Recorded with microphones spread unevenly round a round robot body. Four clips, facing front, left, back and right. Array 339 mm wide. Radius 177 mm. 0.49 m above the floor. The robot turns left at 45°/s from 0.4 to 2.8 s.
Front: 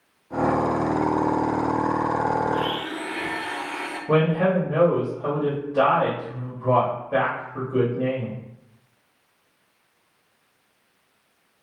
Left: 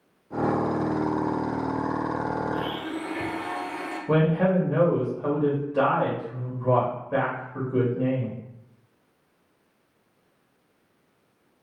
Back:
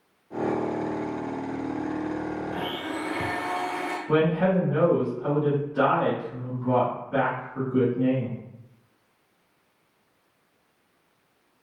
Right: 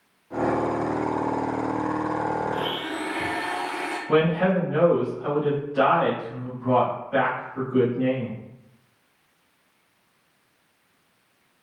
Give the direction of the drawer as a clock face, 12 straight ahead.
I don't hear a drawer.